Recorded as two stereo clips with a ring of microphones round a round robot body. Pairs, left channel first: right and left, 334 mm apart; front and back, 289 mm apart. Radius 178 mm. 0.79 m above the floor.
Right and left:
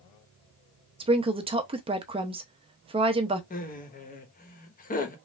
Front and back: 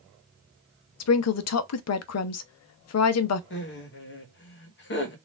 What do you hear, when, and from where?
1.0 s a woman speaking: 20° left, 0.6 m
3.5 s laughter: 35° right, 1.0 m